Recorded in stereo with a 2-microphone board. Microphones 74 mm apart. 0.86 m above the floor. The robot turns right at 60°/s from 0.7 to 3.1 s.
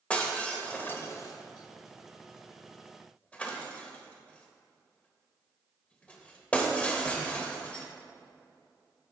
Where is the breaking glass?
15° left (ahead or behind), 1.1 m; by 7.8 s 20° left (ahead or behind), 1.1 m.